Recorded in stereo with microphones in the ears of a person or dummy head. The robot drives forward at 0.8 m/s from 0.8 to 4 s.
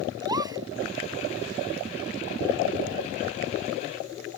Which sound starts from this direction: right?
A gasp, at 0.2 s.